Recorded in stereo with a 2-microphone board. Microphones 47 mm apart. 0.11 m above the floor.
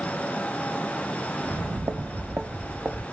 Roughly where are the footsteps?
Right.